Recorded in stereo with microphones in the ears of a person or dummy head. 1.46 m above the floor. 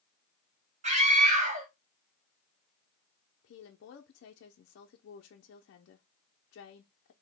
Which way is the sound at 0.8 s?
40° right (ahead or behind).